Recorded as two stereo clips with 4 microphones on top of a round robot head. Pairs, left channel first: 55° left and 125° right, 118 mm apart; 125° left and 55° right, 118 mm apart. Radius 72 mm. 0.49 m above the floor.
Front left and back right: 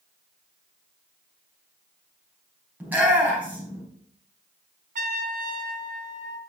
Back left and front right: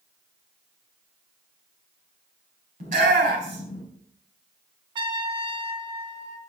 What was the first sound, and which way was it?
A shout, 50° right.